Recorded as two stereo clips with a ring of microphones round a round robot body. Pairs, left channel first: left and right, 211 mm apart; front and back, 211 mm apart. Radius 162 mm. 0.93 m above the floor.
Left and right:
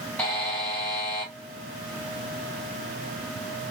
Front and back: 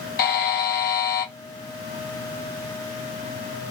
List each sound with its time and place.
0.2 s a buzzer: 5° left, 0.6 m